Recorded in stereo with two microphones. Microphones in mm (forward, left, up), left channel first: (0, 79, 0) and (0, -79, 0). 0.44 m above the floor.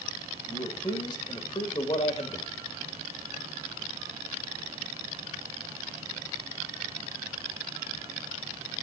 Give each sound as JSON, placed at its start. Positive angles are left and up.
{"t": 0.5, "sound": "a man speaking", "side_deg": 25, "distance_m": 2.5}